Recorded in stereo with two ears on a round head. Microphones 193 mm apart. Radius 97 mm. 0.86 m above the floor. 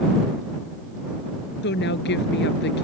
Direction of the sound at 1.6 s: 55° left (ahead or behind).